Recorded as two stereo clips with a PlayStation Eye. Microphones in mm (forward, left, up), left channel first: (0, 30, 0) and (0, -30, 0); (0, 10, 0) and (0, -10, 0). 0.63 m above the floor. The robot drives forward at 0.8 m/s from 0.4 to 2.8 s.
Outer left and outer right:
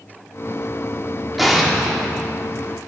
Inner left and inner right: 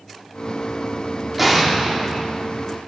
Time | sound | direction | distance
1.4 | an explosion | 5° right (ahead or behind) | 1.7 m